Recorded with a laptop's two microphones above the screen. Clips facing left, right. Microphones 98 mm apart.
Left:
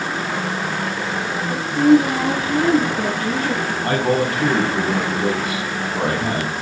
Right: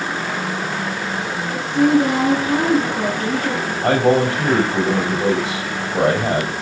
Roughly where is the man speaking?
Right.